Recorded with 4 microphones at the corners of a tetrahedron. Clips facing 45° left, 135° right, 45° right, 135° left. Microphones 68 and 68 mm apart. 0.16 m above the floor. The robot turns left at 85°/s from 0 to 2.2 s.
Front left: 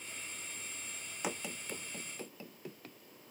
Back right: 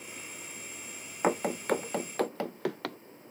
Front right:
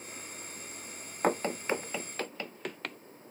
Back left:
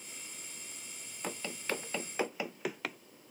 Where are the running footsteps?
85° right; by 3.0 s 140° right.